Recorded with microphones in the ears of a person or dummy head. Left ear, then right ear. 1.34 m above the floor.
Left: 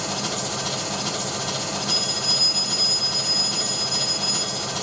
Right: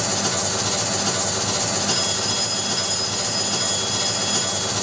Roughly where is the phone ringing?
Centre.